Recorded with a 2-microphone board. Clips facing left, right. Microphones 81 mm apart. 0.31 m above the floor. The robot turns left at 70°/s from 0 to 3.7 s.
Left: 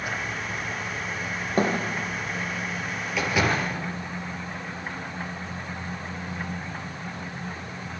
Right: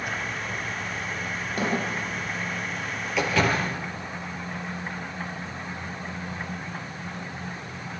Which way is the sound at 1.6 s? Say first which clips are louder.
Left 4 dB; 40° left (ahead or behind).